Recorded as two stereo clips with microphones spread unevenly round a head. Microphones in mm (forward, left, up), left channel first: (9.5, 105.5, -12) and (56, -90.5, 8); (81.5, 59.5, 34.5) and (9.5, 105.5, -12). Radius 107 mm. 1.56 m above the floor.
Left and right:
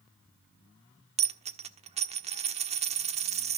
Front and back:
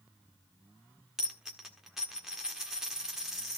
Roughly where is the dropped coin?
Right.